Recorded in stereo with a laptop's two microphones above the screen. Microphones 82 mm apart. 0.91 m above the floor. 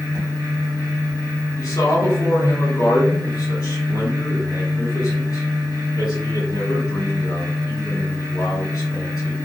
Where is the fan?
50° right (ahead or behind), 1.4 m.